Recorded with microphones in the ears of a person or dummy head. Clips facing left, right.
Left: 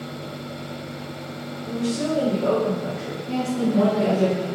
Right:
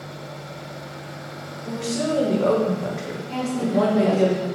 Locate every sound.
1.6 s a woman speaking: 65° right (ahead or behind), 0.8 m
3.3 s a woman speaking: 25° left (ahead or behind), 0.6 m